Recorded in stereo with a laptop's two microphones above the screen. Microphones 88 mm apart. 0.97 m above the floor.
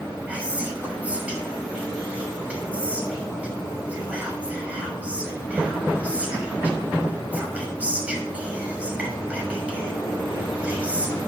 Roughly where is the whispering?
Centre.